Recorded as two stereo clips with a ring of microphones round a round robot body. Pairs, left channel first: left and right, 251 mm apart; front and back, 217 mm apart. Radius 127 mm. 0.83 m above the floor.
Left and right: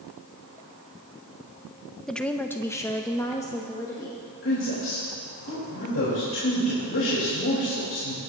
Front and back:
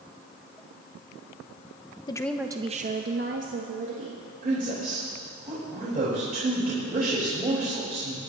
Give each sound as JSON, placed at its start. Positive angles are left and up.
{"t": 2.1, "sound": "a woman speaking", "azimuth_deg": 5, "distance_m": 0.6}
{"t": 4.4, "sound": "a woman speaking", "azimuth_deg": 130, "distance_m": 4.0}